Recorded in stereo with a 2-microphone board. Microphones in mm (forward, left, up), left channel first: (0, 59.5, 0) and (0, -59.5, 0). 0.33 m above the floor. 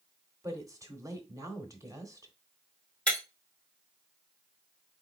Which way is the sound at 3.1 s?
10° left (ahead or behind).